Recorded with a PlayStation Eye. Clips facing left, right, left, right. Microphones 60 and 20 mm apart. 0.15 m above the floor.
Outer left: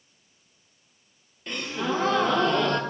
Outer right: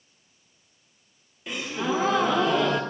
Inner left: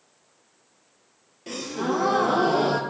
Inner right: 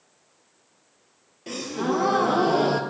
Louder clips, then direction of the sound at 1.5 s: Outer right 1 dB, inner right 1 dB; 5° right (ahead or behind).